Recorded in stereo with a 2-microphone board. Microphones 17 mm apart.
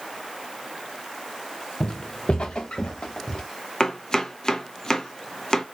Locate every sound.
1.8 s footsteps: 80° left, 0.5 m; by 3.4 s 65° left (ahead or behind), 1.4 m
3.8 s chopping: 45° left (ahead or behind), 0.7 m